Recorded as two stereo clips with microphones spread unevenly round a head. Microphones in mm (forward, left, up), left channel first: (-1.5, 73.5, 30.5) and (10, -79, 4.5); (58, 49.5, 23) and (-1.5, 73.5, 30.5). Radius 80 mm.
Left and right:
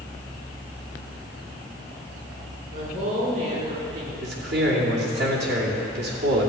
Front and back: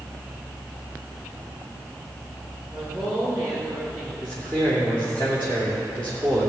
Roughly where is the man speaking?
Right.